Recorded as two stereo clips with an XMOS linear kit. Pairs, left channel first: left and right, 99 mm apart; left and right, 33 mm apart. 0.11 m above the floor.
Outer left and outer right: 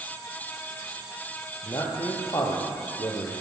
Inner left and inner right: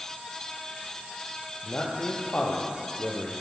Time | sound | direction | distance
1.6 | a man speaking | 40° left (ahead or behind) | 3 m